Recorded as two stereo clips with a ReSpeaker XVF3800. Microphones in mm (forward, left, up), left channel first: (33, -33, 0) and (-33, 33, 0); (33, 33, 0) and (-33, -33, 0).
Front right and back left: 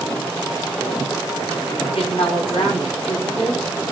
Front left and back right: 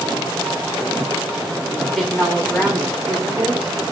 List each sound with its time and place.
1.8 s a woman speaking: 40° right, 7 m